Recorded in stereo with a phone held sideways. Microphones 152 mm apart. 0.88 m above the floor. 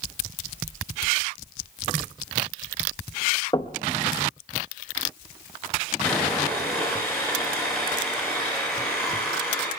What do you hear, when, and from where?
3.5 s knocking: 30° left (ahead or behind), 0.7 m
6.0 s sawing: 5° left (ahead or behind), 7.5 m